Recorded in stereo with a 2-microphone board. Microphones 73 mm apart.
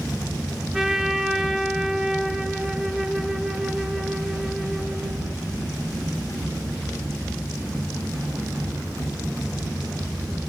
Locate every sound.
0.7 s a trumpet: 5° right (ahead or behind), 0.8 m